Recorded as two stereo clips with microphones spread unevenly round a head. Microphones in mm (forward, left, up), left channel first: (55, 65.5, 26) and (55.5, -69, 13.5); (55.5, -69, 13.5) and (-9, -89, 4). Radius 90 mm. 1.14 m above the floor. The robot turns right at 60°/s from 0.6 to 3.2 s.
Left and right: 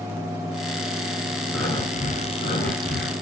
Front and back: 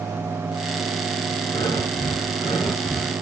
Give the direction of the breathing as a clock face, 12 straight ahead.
11 o'clock.